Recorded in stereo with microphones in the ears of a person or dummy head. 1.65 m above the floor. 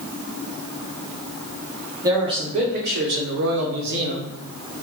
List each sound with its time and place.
2.0 s a man speaking: 15° right (ahead or behind), 0.9 m; by 4.3 s 60° right (ahead or behind), 1.0 m